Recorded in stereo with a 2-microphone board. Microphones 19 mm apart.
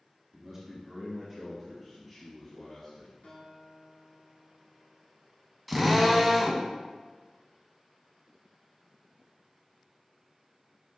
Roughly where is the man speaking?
Centre.